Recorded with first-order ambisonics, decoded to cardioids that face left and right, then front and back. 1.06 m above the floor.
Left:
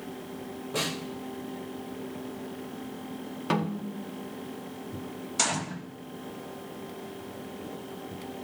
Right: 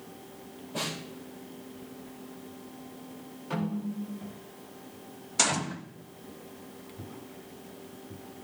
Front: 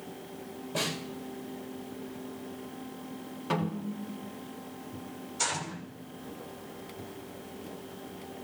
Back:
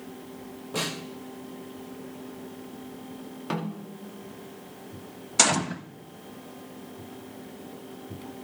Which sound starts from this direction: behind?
A gunshot, at 5.4 s.